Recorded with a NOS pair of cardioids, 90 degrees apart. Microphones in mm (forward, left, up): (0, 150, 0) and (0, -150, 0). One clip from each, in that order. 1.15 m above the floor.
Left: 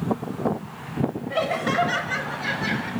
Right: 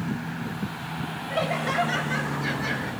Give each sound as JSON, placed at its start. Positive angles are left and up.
{"t": 1.3, "sound": "laughter", "azimuth_deg": 15, "distance_m": 6.0}